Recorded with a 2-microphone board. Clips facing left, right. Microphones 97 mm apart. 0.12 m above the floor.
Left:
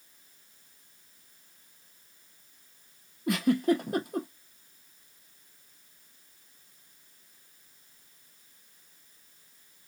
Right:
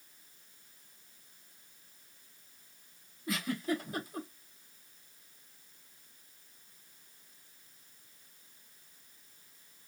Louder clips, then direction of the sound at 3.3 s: Left 9 dB; 70° left (ahead or behind).